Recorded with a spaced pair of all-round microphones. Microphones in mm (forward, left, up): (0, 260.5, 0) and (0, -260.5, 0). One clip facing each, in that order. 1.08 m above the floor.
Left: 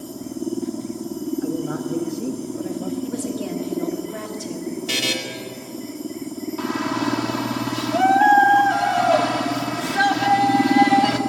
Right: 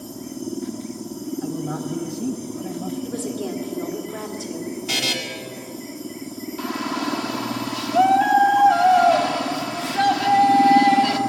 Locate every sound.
1.4 s a man speaking: 20° right (ahead or behind), 1.2 m
3.0 s a woman speaking: 40° left (ahead or behind), 2.5 m
4.9 s a buzzer: 10° right (ahead or behind), 2 m
6.6 s a shout: 60° left (ahead or behind), 2 m